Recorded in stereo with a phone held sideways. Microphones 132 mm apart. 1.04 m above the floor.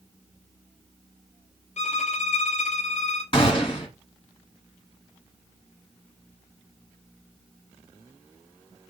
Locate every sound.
1.8 s a violin: 60° left (ahead or behind), 0.5 m
3.3 s a gunshot: 45° left (ahead or behind), 1.7 m